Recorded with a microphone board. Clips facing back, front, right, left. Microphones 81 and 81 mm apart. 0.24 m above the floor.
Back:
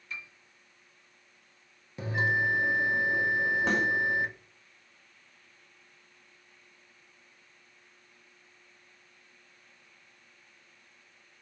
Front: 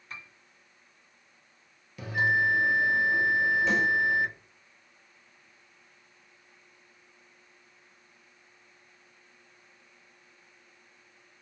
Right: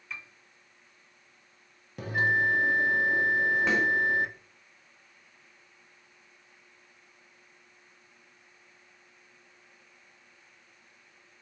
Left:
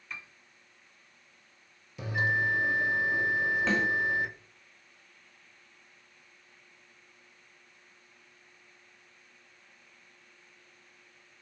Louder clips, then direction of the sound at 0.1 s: Back 2 dB, right 1 dB; straight ahead.